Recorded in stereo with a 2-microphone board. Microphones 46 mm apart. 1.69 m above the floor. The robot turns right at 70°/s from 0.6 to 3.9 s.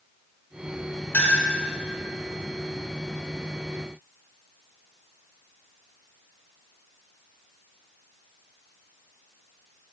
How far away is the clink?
About 2.5 m.